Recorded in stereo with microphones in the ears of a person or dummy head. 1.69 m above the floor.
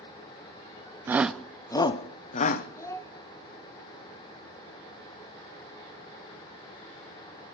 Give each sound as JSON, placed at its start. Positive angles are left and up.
{"t": 1.1, "sound": "a shout", "side_deg": -20, "distance_m": 0.6}
{"t": 2.8, "sound": "a child speaking", "side_deg": 15, "distance_m": 0.8}